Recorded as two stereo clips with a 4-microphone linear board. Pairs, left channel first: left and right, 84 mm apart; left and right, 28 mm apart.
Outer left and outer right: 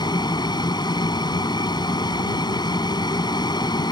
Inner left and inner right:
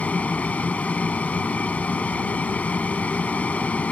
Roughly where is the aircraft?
Left.